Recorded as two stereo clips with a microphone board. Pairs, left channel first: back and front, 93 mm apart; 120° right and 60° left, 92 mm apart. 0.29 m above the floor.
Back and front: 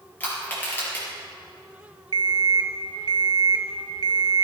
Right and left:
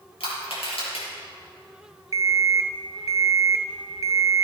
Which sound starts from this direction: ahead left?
An alarm clock, at 2.1 s.